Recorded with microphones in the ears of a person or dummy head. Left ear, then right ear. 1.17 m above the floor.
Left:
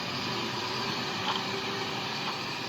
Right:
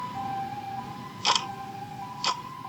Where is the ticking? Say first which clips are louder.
Right 3 dB; 85° right.